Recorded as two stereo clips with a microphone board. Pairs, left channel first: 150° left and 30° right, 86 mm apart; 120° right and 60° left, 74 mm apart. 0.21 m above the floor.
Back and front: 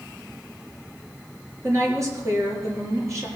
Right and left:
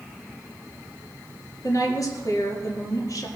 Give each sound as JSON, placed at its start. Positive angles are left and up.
{"t": 1.6, "sound": "a woman speaking", "azimuth_deg": -80, "distance_m": 4.0}